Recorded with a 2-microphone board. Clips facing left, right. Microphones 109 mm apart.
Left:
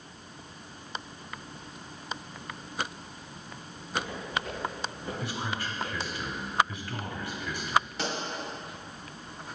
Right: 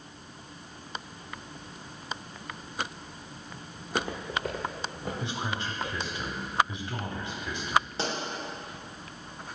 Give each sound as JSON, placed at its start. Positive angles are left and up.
{"t": 3.8, "sound": "footsteps", "side_deg": -65, "distance_m": 1.1}
{"t": 5.2, "sound": "a man speaking", "side_deg": -25, "distance_m": 1.1}
{"t": 8.0, "sound": "a pop", "side_deg": -30, "distance_m": 1.6}